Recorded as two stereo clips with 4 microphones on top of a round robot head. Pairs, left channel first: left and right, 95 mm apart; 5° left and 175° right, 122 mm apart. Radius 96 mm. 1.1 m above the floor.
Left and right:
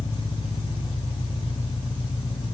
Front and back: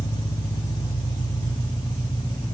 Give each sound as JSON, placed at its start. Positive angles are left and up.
{"t": 0.0, "sound": "an engine running", "azimuth_deg": 60, "distance_m": 2.0}